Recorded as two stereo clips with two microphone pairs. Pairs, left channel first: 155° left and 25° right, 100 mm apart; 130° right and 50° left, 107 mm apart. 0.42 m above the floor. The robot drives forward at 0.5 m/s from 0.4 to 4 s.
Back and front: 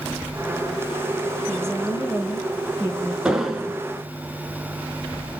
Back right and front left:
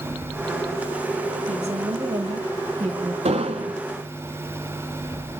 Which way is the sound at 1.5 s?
70° left.